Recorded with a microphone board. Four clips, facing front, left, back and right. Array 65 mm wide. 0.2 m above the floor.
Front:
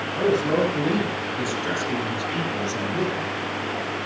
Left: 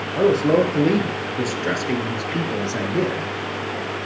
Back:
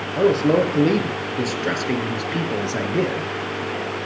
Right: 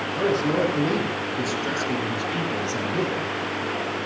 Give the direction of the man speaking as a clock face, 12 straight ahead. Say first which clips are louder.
Left 6 dB, back 4 dB; 7 o'clock.